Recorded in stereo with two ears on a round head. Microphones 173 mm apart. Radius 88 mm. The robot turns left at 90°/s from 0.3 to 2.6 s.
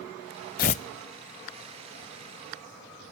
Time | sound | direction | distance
0.6 | tearing paper | 45° left (ahead or behind) | 0.6 m